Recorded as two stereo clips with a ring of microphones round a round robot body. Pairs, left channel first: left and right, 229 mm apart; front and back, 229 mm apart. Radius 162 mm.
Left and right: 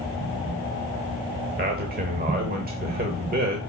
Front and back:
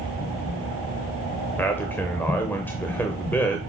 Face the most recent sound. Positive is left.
turn(degrees=-80)